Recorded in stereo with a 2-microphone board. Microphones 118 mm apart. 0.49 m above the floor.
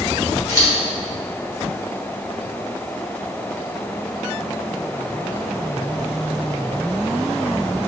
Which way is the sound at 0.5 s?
30° left (ahead or behind).